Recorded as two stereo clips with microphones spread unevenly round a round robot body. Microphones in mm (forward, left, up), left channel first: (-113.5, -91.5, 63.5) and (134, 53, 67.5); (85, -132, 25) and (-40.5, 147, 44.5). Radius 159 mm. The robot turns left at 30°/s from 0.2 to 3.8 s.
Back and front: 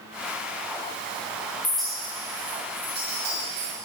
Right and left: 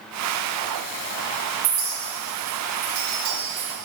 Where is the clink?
125° left, 3 m; by 3.7 s 65° left, 3 m.